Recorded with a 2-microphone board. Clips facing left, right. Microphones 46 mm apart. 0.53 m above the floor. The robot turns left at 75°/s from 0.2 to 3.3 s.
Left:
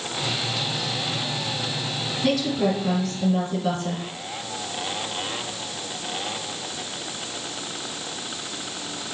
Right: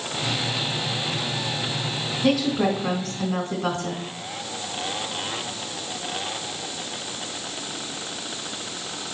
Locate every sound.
2.2 s a woman speaking: 10° right, 2.0 m; by 4.0 s 90° right, 2.0 m